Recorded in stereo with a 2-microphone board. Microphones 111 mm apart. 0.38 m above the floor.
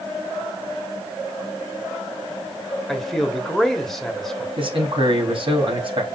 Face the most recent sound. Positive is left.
turn(degrees=-50)  # may be behind; listen again after turning